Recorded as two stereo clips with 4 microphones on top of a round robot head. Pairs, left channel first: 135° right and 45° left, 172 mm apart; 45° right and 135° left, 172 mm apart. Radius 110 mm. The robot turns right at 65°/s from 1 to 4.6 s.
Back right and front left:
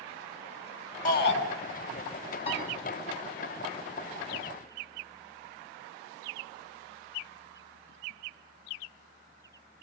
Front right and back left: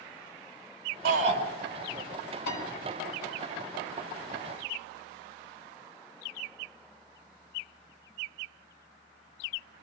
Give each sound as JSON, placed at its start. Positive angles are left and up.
{"t": 1.1, "sound": "a shout", "azimuth_deg": 175, "distance_m": 5.5}
{"t": 2.5, "sound": "a piano", "azimuth_deg": -80, "distance_m": 6.5}